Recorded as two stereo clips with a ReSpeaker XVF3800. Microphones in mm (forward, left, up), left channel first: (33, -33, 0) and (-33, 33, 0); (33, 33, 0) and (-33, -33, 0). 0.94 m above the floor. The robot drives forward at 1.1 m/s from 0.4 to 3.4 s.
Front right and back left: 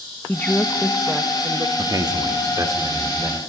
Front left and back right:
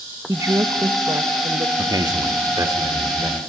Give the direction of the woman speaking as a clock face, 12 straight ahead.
3 o'clock.